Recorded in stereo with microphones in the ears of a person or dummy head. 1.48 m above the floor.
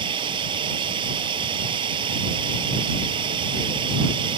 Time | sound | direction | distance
0.0 | running water | 30° right (ahead or behind) | ?